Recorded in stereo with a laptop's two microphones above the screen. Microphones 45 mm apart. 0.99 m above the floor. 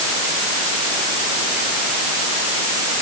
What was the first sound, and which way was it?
Only background noise.